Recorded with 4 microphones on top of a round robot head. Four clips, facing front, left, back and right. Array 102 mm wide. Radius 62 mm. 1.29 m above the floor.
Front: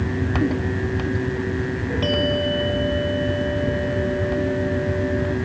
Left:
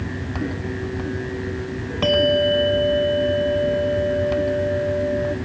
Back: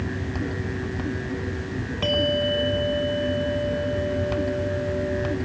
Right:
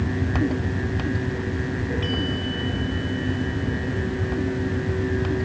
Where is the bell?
80° left.